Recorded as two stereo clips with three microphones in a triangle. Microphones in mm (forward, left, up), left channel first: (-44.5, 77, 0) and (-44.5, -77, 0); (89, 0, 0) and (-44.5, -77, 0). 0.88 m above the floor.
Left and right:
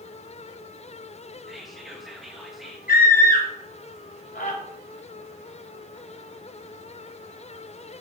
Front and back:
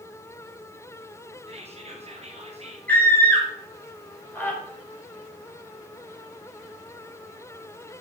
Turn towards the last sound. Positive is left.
turn(degrees=110)